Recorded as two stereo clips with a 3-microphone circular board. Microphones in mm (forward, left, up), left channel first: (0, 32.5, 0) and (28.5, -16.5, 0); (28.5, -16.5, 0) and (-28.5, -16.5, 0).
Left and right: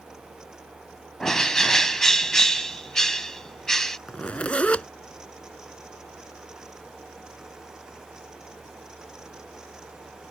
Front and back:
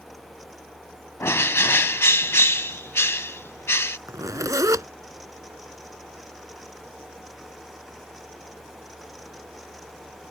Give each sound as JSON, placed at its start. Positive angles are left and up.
{"t": 1.2, "sound": "a bird", "azimuth_deg": 40}
{"t": 4.1, "sound": "a zipper", "azimuth_deg": -175}